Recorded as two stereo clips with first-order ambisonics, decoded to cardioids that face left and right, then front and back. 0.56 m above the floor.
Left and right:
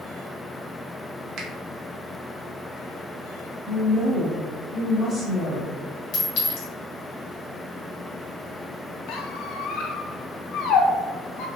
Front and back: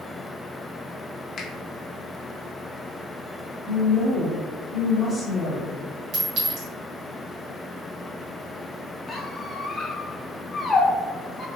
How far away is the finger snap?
About 0.6 m.